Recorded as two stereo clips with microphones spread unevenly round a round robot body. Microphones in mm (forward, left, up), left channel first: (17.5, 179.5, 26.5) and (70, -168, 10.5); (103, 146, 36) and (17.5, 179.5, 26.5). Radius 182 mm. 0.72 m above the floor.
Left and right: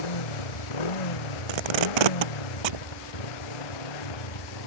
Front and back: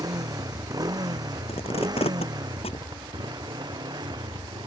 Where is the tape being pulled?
85° right.